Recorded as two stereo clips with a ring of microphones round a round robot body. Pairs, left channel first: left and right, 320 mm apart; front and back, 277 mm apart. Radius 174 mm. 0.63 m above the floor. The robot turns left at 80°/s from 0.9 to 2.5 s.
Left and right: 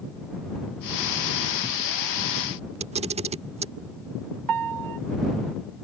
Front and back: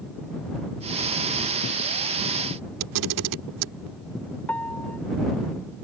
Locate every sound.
2.8 s a camera shutter: 160° right
4.5 s a piano: 85° right